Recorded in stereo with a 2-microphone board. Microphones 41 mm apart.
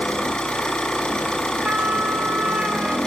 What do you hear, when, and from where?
0.0 s an engine running: 15° left (ahead or behind), 6 m
1.6 s a trumpet: 40° right (ahead or behind), 3 m